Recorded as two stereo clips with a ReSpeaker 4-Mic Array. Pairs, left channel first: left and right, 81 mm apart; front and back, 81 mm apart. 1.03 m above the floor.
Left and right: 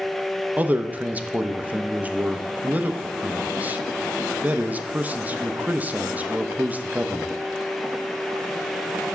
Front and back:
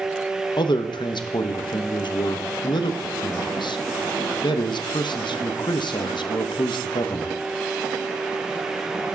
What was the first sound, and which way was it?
A man speaking, 20° right.